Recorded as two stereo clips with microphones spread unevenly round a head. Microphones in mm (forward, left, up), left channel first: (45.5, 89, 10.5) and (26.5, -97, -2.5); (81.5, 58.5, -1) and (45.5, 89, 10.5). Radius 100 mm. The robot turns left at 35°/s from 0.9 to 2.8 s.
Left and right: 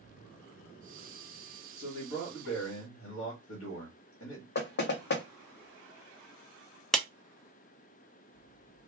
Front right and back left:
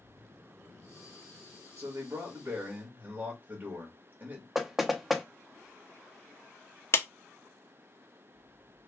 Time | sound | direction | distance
1.8 | a man speaking | 130° left | 1.6 m
4.5 | knocking | 60° left | 0.8 m
6.9 | a clap | 5° right | 0.8 m